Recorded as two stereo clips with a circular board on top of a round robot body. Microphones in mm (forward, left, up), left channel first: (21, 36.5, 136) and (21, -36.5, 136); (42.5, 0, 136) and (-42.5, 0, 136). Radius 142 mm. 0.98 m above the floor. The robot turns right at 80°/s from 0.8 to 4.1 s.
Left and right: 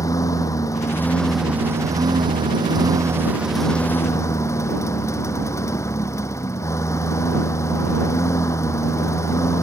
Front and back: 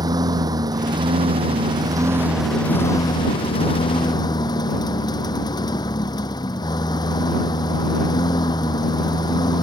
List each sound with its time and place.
0.0 s a lawn mower: 135° left; by 9.7 s 40° left